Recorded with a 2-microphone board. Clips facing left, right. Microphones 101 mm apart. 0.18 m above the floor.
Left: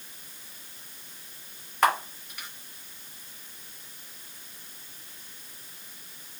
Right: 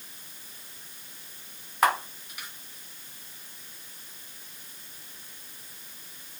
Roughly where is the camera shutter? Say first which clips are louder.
Even; centre.